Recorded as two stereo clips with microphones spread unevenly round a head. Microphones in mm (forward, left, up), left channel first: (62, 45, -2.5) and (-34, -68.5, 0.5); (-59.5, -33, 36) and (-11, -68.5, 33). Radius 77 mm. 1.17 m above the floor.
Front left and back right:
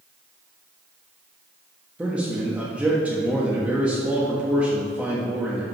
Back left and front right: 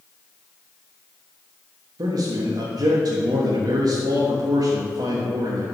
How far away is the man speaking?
About 1.3 m.